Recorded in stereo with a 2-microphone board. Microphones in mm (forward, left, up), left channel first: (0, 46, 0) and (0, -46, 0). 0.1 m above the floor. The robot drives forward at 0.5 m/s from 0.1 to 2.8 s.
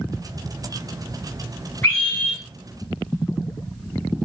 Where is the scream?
25° left (ahead or behind), 1.6 m.